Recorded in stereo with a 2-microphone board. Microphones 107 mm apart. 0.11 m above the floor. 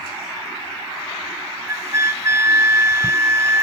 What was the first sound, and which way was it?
A flute, 25° right (ahead or behind).